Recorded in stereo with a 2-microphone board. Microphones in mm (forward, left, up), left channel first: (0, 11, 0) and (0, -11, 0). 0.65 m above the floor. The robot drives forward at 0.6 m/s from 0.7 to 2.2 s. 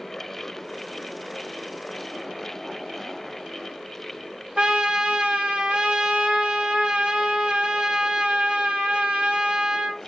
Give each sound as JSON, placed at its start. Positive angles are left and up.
{"t": 4.6, "sound": "a trumpet", "side_deg": -50, "distance_m": 0.7}